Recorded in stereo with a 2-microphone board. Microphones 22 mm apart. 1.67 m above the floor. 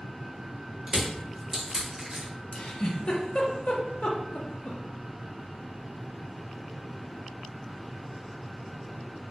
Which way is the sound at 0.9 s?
30° right (ahead or behind).